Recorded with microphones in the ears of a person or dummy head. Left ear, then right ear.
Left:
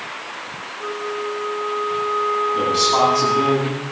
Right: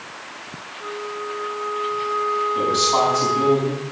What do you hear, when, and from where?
0.8 s a flute: 20° left (ahead or behind), 1.6 m
2.5 s a man speaking: 5° right (ahead or behind), 8.5 m